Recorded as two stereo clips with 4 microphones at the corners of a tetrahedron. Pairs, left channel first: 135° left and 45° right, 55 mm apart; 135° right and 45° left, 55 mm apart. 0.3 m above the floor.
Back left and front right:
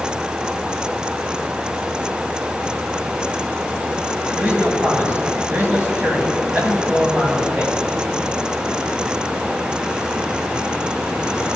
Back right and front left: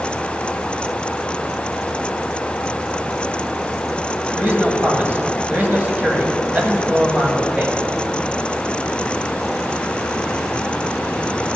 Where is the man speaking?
Straight ahead, 1.9 m.